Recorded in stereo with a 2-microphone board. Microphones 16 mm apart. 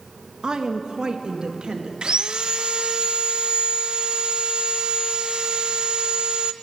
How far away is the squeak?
I don't hear a squeak.